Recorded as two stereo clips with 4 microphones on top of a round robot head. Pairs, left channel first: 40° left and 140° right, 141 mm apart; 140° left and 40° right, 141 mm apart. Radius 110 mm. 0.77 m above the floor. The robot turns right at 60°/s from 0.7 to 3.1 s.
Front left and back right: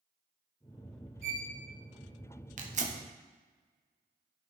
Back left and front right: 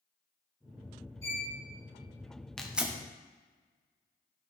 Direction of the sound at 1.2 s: 150° right.